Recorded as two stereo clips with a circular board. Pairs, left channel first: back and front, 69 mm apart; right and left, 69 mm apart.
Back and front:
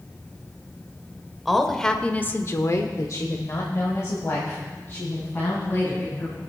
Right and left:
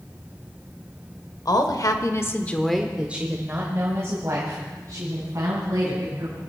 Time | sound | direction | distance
1.4 | a woman speaking | 90° right | 1.5 m